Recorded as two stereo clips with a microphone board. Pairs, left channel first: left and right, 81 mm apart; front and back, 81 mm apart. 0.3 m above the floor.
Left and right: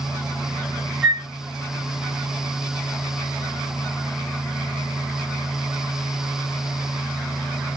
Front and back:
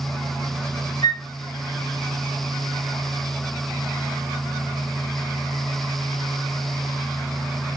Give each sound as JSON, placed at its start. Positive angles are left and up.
{"t": 1.0, "sound": "a flute", "azimuth_deg": 15, "distance_m": 2.0}